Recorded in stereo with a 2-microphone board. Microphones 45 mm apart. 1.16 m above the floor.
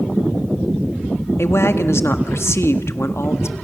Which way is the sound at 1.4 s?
75° left (ahead or behind).